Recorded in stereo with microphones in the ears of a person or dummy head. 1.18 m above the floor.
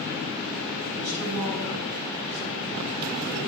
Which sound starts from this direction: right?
A man speaking, at 0.9 s.